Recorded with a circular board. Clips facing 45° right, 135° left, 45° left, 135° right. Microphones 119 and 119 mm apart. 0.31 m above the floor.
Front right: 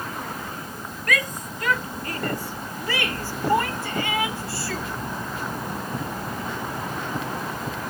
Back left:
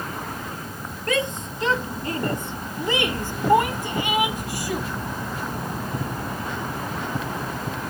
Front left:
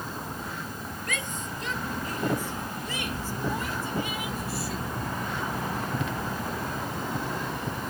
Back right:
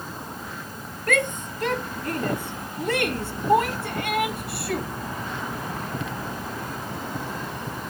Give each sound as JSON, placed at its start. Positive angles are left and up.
{"t": 1.1, "sound": "a shout", "azimuth_deg": -160}